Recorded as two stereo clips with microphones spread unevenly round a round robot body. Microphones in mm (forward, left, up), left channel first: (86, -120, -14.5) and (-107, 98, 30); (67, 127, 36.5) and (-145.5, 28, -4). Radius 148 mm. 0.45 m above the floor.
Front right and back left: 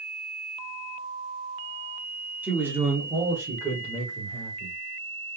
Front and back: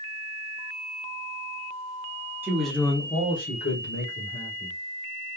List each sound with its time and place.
2.4 s a man speaking: 130° right, 1.1 m; by 4.8 s 45° left, 2 m